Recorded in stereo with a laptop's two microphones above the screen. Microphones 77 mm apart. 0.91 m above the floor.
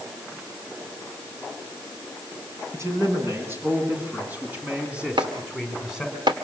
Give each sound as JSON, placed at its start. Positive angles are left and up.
{"t": 2.7, "sound": "a man speaking", "side_deg": -35, "distance_m": 9.0}
{"t": 5.2, "sound": "chopping", "side_deg": -80, "distance_m": 1.9}